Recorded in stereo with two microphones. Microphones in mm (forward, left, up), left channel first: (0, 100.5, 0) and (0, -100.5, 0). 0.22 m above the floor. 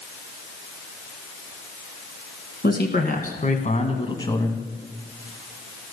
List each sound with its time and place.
2.6 s a man speaking: 55° left (ahead or behind), 2 m; by 4.7 s 5° left (ahead or behind), 1.3 m